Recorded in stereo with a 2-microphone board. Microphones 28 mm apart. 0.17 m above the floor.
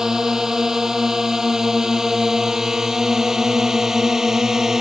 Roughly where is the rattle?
I don't hear a rattle.